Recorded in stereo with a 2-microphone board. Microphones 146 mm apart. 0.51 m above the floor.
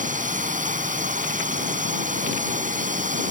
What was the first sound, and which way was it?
A drone, 55° right (ahead or behind).